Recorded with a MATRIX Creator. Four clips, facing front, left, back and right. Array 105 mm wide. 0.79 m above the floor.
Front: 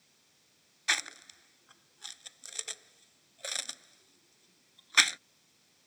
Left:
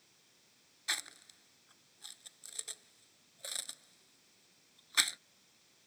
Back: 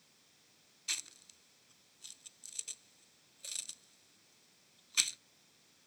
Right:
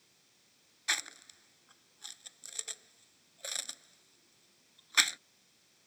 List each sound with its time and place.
0.9 s chewing: 15° right